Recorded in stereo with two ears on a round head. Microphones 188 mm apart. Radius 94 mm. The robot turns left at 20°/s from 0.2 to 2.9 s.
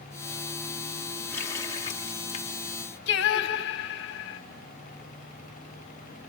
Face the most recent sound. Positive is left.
turn(degrees=55)  # may be behind; listen again after turning